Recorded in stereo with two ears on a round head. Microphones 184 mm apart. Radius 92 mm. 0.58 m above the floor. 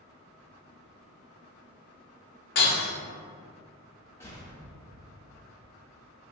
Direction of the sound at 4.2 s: 15° left (ahead or behind).